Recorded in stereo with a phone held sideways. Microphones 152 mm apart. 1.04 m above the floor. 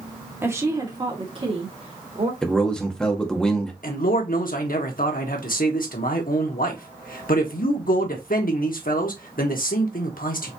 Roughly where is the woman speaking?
Centre.